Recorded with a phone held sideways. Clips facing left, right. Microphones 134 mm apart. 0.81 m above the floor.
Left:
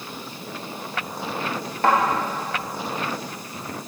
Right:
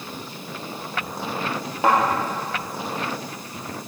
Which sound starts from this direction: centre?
A thud, at 1.8 s.